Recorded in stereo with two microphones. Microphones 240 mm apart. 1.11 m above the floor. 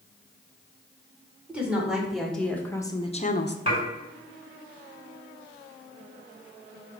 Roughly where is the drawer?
No drawer in this recording.